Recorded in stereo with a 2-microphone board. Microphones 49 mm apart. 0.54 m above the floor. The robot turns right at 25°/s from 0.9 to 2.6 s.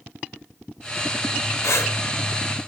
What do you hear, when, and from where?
1.6 s breathing: 70° left (ahead or behind), 0.7 m; by 2.0 s 65° left (ahead or behind), 0.7 m